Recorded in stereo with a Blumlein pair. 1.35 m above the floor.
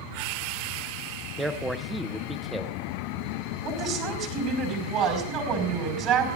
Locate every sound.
1.4 s a man speaking: 5° right, 0.7 m
3.6 s a woman speaking: 40° right, 4.5 m